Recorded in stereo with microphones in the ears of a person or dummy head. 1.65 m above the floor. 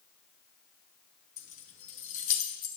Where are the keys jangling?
40° left (ahead or behind), 1.0 m.